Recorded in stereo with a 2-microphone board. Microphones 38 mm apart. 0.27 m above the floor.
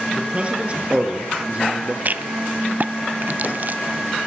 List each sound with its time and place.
0.1 s a man speaking: 30° right (ahead or behind), 6 m; by 1.9 s 35° right (ahead or behind), 5.5 m
2.0 s a rattle: 45° right (ahead or behind), 0.7 m